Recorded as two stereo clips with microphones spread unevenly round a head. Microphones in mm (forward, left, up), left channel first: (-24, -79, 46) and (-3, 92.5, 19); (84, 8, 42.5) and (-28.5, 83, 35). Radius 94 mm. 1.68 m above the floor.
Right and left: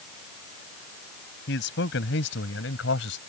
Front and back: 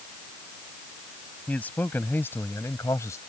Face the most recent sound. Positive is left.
turn(degrees=-105)